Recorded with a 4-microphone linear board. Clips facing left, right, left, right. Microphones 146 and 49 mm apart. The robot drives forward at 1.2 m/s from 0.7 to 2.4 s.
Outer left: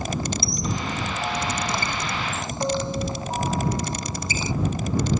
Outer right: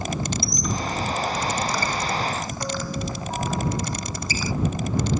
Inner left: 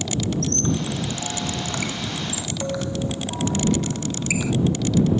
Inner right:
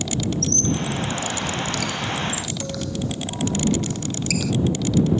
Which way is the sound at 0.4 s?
30° left (ahead or behind).